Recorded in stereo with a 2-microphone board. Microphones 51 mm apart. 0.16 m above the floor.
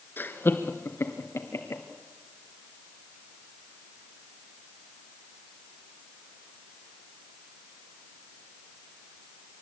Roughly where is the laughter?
Left.